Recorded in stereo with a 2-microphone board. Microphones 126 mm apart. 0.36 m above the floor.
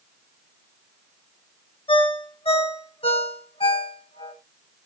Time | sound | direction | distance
1.9 | a ringtone | 50° left (ahead or behind) | 1.4 m